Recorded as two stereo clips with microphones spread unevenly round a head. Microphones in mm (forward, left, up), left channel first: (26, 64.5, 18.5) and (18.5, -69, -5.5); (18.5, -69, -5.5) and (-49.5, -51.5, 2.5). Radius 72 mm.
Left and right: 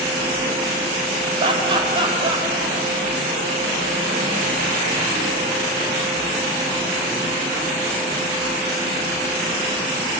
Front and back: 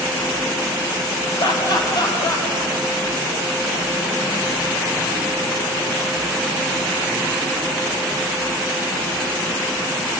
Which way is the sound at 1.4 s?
40° right.